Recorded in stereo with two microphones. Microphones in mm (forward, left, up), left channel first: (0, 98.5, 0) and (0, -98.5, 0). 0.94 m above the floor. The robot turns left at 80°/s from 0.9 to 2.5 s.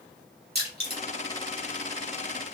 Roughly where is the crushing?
Right.